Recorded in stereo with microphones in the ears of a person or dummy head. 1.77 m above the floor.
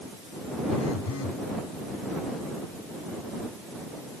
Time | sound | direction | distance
0.7 | a phone buzzing | 85° left | ?